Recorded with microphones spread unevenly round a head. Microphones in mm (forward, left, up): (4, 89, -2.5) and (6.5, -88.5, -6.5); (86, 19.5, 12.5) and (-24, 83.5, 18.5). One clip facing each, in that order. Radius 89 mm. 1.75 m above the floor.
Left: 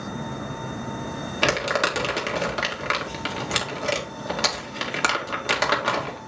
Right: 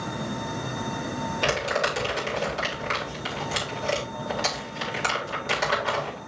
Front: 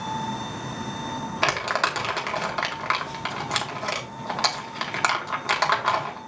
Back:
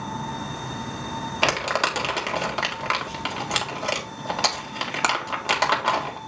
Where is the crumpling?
75° left, 2 m.